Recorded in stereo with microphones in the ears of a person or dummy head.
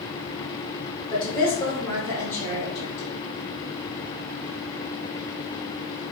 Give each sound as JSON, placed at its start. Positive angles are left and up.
{"t": 1.1, "sound": "a woman speaking", "side_deg": 15, "distance_m": 0.7}